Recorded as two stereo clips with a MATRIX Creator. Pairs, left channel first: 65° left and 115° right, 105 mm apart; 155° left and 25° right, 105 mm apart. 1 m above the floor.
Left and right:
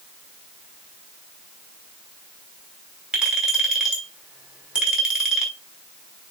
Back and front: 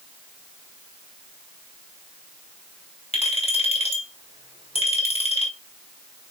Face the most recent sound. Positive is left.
turn(degrees=165)